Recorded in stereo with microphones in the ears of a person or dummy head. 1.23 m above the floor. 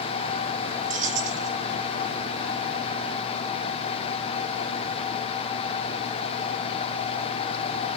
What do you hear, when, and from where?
0.9 s keys jangling: 45° right (ahead or behind), 2.5 m